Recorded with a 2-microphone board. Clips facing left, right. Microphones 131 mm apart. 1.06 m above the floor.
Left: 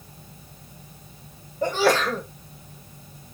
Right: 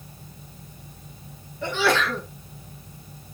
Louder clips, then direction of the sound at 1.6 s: Left 2 dB; 40° left (ahead or behind).